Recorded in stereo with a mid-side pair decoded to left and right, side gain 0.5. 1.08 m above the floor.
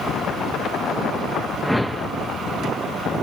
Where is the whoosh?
5° right, 0.8 m.